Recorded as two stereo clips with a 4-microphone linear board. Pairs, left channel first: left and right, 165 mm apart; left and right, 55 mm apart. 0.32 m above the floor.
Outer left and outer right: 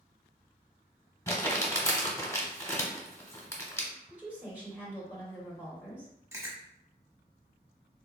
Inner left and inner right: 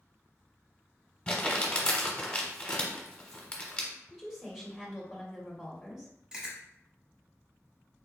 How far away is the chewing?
About 0.9 m.